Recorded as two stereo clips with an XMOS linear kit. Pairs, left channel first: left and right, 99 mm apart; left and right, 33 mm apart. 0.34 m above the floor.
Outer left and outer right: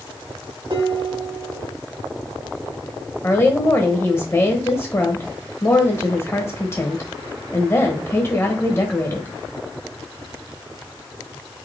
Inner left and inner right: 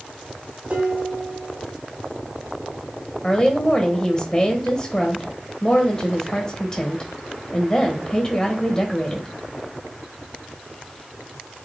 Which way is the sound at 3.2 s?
25° left (ahead or behind).